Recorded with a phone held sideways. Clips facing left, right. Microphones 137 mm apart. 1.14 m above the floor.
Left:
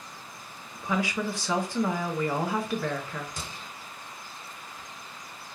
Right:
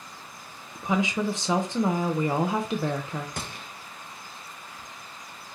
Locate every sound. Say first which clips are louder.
0.8 s a woman speaking: right 3 dB; 20° right (ahead or behind), 0.5 m
3.4 s a gunshot: right 3 dB; 65° right (ahead or behind), 0.5 m